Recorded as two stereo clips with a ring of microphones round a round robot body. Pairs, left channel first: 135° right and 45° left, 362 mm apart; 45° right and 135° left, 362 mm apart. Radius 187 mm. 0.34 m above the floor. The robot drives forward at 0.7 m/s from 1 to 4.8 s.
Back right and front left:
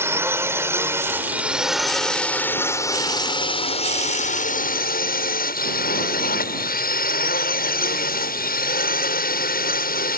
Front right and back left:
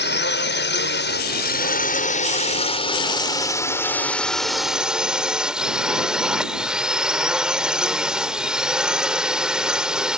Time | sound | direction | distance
0.0 | a drone | 30° right | ?